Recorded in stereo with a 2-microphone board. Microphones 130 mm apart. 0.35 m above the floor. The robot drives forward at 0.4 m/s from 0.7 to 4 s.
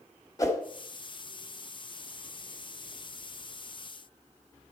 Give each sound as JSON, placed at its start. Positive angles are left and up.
{"t": 0.4, "sound": "a whoosh", "side_deg": 25, "distance_m": 1.3}